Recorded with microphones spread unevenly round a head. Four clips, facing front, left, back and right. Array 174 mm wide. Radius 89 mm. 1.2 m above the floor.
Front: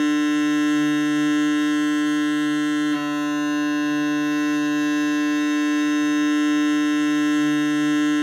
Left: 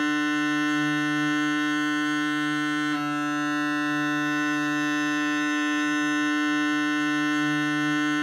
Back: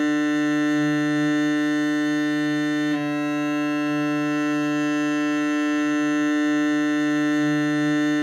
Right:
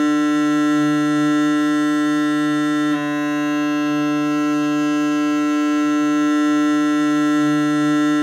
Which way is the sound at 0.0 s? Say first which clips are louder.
Right 9 dB, front 2 dB; 95° right.